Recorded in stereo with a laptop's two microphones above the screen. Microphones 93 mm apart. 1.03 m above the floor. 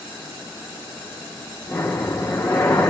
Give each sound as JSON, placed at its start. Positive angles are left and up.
{"t": 1.7, "sound": "breathing", "side_deg": 20, "distance_m": 1.9}